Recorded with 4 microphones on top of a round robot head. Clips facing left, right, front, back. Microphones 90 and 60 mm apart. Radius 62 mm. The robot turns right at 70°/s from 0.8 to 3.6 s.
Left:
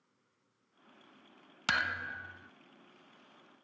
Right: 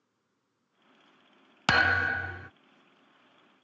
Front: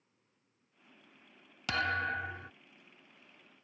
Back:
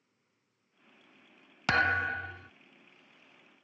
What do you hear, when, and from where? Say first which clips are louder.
1.7 s a thud: right 10 dB, back 5 dB; 125° right; by 2.5 s 65° right